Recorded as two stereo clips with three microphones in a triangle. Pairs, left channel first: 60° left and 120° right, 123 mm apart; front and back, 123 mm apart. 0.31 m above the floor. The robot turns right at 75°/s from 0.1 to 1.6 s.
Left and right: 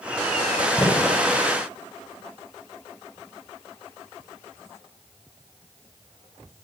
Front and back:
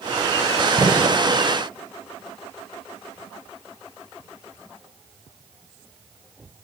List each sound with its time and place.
0.8 s a gunshot: 125° left, 2.5 m; by 1.2 s 155° left, 2.5 m